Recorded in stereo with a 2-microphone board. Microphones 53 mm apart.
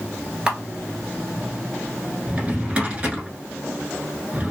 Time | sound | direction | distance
0.5 | a camera shutter | 15° right (ahead or behind) | 1.0 m
2.3 | a drawer | 25° right (ahead or behind) | 1.0 m